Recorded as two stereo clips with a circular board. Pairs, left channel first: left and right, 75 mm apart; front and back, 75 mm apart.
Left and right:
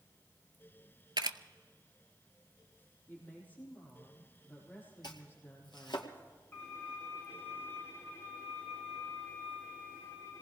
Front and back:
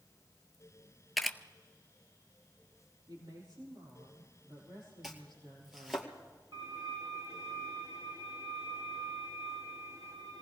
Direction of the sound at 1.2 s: 90° right.